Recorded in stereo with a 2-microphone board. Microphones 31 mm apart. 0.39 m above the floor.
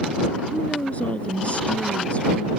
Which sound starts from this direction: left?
A woman speaking, at 0.5 s.